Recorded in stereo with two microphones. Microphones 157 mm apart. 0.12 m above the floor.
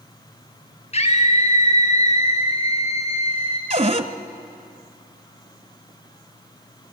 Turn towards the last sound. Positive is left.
turn(degrees=-40)  # may be behind; listen again after turning